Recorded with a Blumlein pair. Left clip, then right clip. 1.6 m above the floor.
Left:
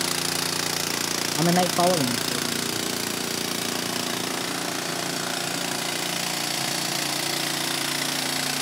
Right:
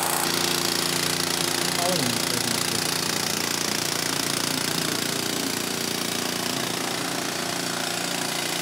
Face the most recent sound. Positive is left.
turn(degrees=-45)